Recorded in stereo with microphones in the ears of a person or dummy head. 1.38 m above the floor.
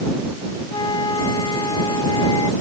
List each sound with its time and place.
0.7 s a flute: 25° left (ahead or behind)